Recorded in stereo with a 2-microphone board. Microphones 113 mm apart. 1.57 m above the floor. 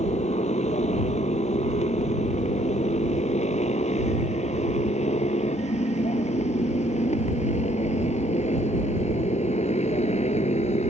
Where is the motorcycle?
85° left.